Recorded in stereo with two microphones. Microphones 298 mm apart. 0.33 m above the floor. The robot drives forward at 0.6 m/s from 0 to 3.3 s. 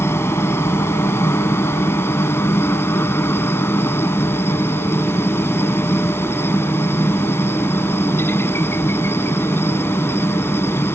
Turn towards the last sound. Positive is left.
turn(degrees=10)  # may be behind; listen again after turning